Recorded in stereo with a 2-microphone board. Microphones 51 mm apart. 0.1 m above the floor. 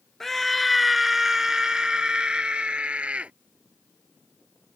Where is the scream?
5° left (ahead or behind); by 3.3 s 25° right (ahead or behind).